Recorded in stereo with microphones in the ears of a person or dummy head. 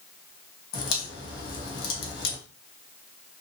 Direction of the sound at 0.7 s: 60° left (ahead or behind).